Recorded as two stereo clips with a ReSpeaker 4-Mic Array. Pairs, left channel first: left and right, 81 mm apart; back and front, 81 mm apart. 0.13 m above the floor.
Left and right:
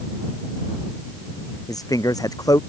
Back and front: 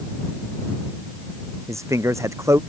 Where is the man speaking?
50° left.